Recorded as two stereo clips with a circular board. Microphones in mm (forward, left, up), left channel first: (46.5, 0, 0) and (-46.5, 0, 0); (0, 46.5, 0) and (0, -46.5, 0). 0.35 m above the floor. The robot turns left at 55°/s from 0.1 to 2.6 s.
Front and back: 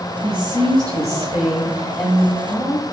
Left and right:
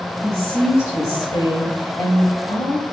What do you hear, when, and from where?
0.2 s a woman speaking: 170° right, 2 m; by 2.8 s 60° left, 2 m